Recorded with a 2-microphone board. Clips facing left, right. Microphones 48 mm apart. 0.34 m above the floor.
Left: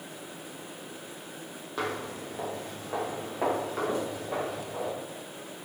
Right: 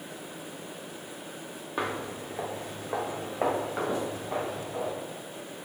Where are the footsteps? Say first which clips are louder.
Right 1 dB; 20° right (ahead or behind), 0.8 m; by 4.9 s 15° right (ahead or behind), 3 m.